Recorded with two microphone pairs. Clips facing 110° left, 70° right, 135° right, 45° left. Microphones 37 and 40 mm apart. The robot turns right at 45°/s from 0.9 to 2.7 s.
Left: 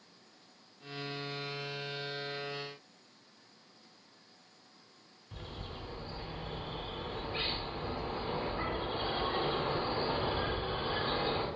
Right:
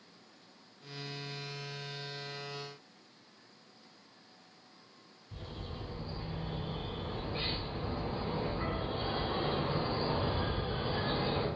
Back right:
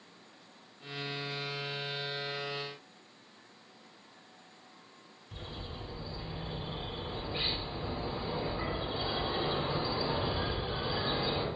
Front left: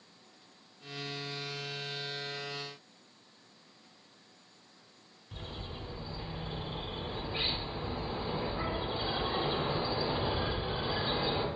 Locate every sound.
5.3 s a bird: 125° left, 0.8 m